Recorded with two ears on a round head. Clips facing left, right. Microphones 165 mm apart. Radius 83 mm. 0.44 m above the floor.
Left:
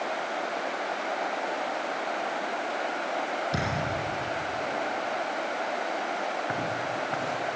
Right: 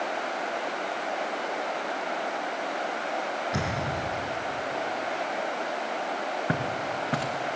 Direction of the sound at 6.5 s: 40° right (ahead or behind).